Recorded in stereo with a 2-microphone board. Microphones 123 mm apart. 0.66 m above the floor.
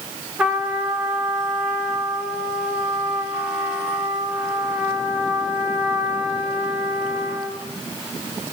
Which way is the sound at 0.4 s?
10° right (ahead or behind).